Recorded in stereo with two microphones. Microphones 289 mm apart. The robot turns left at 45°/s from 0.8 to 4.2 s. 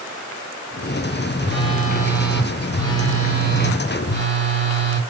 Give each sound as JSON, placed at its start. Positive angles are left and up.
{"t": 1.4, "sound": "a phone buzzing", "azimuth_deg": -135, "distance_m": 1.5}